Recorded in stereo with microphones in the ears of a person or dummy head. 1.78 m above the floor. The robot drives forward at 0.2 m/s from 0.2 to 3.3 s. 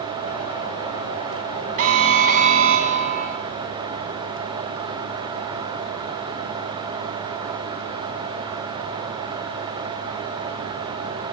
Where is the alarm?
40° right (ahead or behind), 2.5 m.